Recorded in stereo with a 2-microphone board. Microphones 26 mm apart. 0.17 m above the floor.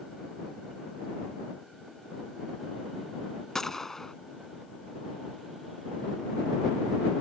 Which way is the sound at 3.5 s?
15° left (ahead or behind).